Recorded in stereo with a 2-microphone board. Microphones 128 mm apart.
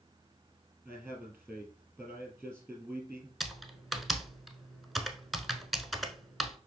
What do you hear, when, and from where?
0.8 s a man speaking: 5° left (ahead or behind), 2 m
3.4 s typing on a keyboard: centre (ahead or behind), 1.0 m